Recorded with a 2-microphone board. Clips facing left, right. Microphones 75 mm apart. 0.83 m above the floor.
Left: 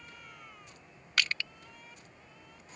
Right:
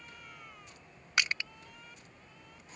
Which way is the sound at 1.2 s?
20° right (ahead or behind).